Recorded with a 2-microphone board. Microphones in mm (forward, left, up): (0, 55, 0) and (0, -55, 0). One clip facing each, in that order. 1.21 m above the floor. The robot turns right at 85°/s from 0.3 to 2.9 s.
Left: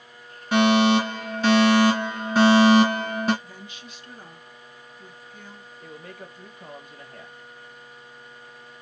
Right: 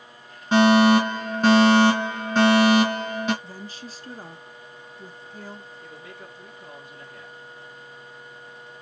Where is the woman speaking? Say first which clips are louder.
Right 4 dB; 35° right (ahead or behind), 0.6 m.